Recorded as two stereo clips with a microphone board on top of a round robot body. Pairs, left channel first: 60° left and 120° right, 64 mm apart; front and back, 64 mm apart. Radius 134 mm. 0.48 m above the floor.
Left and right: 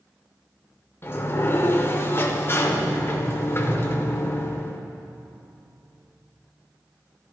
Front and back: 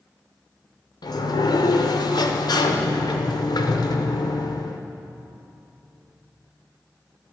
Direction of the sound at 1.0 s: 5° left.